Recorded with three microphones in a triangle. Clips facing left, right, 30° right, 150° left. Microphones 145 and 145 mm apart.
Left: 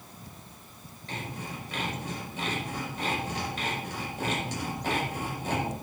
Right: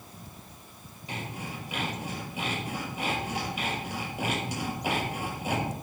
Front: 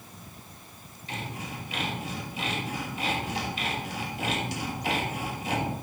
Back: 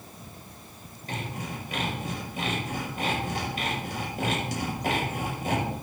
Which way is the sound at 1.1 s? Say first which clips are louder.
Even, back 2 dB; 170° right.